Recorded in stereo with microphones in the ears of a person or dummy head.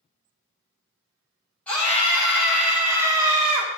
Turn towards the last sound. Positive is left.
turn(degrees=-35)  # may be behind; listen again after turning